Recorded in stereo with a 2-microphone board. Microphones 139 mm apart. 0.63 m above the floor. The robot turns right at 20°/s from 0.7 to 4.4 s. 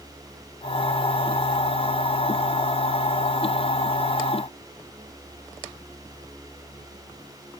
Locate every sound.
Only background noise.